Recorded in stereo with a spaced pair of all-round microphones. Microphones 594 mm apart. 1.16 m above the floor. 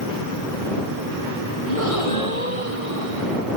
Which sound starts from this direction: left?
A gasp, at 1.7 s.